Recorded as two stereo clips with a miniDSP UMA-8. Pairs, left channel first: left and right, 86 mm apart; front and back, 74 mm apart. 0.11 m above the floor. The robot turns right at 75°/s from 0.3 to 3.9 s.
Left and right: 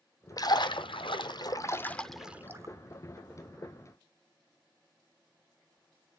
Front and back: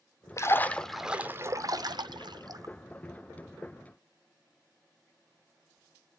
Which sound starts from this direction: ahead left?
A splash, at 0.4 s.